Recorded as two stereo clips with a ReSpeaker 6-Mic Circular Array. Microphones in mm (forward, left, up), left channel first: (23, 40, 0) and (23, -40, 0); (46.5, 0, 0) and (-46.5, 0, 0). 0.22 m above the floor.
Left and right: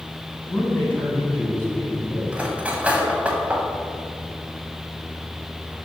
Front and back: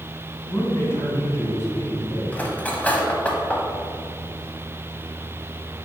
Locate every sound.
0.5 s a man speaking: 45° left, 1.8 m
2.3 s cutlery clinking: 45° right, 0.8 m